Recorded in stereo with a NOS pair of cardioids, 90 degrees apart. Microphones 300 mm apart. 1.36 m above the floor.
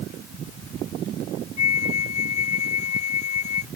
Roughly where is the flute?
Ahead left.